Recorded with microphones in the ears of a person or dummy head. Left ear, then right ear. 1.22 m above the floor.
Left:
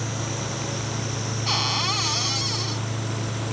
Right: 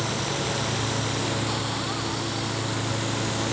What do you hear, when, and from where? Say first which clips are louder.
1.5 s a cupboard door: left 5 dB; 65° left (ahead or behind)